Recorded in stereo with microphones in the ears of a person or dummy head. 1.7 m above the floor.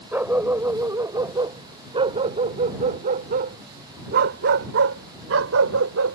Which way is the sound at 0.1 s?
5° right (ahead or behind).